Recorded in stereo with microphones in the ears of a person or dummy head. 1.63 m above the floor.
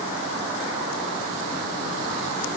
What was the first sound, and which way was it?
Only background noise.